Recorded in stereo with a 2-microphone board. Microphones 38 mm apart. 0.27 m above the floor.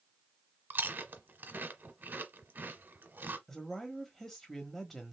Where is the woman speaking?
10° left (ahead or behind), 1.0 m.